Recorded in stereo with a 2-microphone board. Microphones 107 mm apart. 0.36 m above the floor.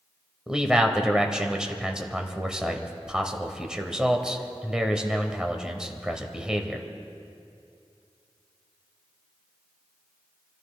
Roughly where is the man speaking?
Centre.